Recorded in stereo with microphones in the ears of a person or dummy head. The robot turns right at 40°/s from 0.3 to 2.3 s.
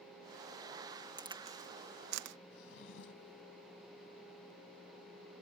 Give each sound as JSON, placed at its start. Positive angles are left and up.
{"t": 1.2, "sound": "a crack", "side_deg": -20}
{"t": 2.5, "sound": "a drawer", "side_deg": 70}